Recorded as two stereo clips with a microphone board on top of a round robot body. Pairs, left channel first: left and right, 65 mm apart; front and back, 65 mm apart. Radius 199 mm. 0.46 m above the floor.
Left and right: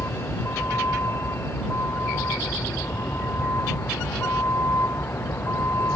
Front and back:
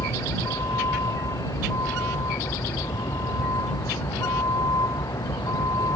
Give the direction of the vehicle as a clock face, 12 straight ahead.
11 o'clock.